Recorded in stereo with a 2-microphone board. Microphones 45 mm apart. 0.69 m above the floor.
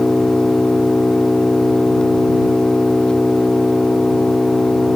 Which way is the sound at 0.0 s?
20° left (ahead or behind).